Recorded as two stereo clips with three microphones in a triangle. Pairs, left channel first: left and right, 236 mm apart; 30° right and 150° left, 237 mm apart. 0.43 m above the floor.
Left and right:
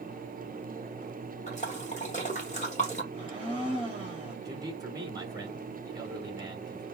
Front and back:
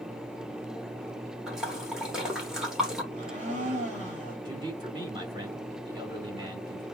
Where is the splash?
65° left, 1.2 m.